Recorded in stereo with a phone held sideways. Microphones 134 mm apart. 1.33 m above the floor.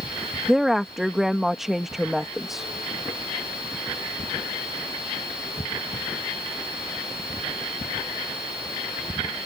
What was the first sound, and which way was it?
A woman speaking, centre (ahead or behind).